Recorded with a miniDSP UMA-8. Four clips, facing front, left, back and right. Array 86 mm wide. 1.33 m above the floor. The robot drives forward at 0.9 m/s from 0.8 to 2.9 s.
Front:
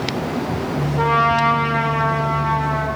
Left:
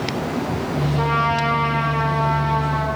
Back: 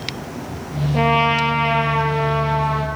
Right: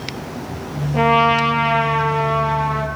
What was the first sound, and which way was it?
A trumpet, 140° right.